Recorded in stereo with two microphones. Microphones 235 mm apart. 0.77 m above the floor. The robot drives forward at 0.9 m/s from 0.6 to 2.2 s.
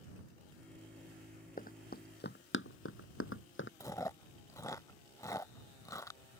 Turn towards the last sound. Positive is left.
turn(degrees=15)  # may be behind; listen again after turning